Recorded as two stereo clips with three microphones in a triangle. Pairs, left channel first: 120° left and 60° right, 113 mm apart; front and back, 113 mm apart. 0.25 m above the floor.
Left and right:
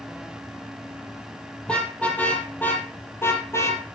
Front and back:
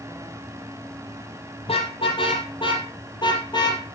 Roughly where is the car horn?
Ahead left.